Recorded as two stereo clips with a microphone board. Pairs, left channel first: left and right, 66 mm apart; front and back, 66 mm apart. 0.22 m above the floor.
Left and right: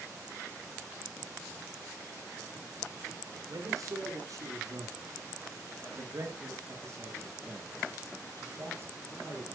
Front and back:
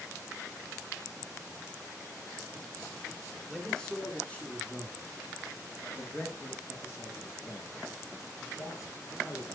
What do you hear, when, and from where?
3.5 s a man speaking: 85° right, 2.5 m; by 9.6 s 30° right, 4.5 m